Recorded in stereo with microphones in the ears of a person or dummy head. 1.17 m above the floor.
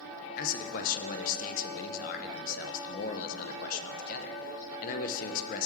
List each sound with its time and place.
0.4 s a man speaking: 45° left (ahead or behind), 0.5 m